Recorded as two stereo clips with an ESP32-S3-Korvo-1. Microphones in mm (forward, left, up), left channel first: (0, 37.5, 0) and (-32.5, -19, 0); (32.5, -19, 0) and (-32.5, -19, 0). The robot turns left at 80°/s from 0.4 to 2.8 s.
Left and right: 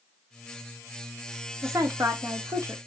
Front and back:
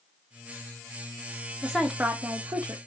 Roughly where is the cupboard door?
No cupboard door in this recording.